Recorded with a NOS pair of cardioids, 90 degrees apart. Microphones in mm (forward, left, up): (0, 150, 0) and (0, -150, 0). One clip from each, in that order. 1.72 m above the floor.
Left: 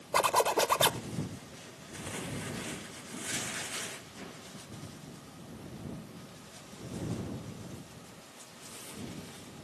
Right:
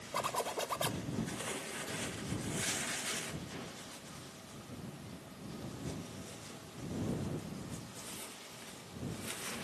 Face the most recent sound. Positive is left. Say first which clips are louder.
# left 10 dB
turn(degrees=70)